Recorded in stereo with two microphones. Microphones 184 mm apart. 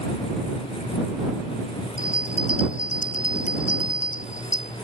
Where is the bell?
40° left (ahead or behind).